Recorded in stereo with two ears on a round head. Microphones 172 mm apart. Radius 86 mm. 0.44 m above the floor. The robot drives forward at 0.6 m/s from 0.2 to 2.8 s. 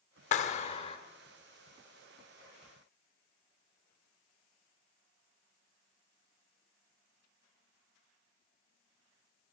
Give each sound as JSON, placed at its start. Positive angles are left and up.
{"t": 0.3, "sound": "a clap", "side_deg": 40, "distance_m": 0.7}